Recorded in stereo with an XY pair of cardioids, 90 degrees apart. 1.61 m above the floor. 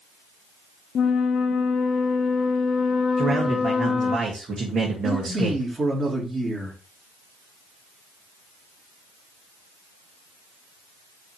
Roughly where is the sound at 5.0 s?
Ahead right.